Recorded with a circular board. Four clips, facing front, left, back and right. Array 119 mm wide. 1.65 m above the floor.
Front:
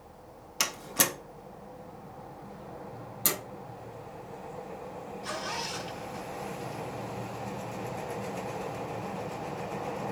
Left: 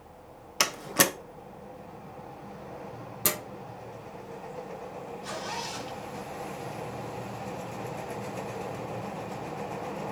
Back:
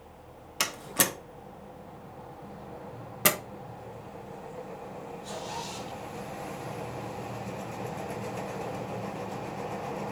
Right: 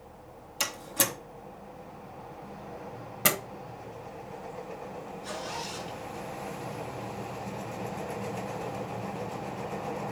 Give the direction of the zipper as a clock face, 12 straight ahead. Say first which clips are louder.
Left 1 dB, front 2 dB; 11 o'clock.